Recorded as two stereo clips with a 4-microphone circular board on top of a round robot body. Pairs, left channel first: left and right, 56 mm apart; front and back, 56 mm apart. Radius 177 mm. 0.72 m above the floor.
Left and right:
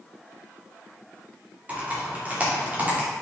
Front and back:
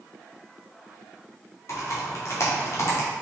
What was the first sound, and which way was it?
Typing on a keyboard, 30° right.